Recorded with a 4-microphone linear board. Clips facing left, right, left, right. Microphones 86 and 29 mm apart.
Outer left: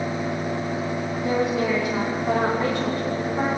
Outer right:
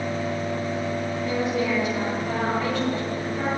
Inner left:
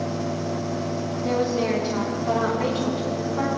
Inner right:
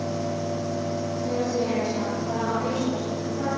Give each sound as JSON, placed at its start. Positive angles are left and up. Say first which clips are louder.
{"t": 1.2, "sound": "a woman speaking", "louder": "outer left 3 dB, inner left 4 dB", "side_deg": 40, "distance_m": 4.5}